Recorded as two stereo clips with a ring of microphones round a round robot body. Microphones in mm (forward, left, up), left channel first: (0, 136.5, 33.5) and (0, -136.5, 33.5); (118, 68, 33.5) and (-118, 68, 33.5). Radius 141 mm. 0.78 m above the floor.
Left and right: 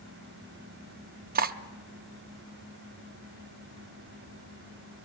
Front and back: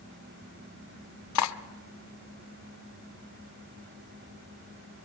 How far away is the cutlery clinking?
About 0.7 m.